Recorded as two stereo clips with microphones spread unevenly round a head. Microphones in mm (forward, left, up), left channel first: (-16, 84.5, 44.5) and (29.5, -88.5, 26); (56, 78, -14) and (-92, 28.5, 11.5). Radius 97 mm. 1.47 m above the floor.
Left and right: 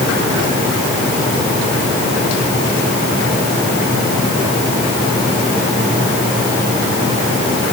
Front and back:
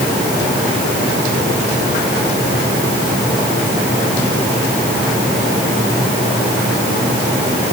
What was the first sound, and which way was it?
Only background noise.